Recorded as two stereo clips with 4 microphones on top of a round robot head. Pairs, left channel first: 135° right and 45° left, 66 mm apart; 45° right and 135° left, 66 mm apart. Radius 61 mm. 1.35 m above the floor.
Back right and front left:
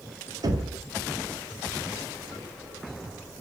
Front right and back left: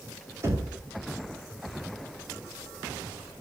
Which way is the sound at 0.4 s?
85° left.